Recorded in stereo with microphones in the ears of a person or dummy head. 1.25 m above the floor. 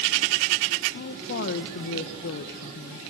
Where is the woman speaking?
55° left (ahead or behind), 1.2 m.